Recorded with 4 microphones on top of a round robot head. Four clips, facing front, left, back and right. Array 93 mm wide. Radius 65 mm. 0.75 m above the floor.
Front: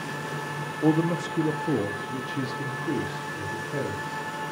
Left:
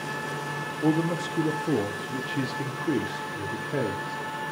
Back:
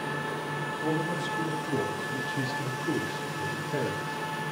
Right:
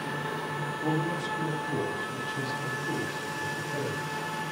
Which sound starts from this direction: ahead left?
A man speaking, at 0.8 s.